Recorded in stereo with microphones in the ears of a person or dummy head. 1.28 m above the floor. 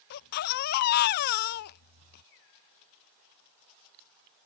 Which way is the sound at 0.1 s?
50° left (ahead or behind).